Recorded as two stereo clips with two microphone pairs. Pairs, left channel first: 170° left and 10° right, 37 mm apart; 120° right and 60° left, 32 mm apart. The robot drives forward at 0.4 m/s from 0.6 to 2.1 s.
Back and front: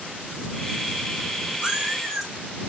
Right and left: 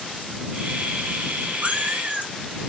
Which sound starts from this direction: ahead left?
A cat meowing, at 1.6 s.